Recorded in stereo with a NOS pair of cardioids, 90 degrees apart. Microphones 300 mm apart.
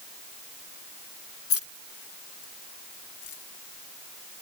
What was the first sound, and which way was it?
Keys jangling, 50° left.